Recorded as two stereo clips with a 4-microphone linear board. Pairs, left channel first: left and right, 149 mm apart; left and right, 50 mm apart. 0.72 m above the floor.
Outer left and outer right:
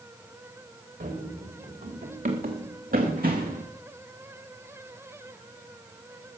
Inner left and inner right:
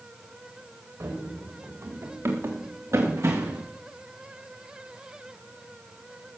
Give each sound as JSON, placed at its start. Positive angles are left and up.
{"t": 1.0, "sound": "running footsteps", "side_deg": -70, "distance_m": 4.0}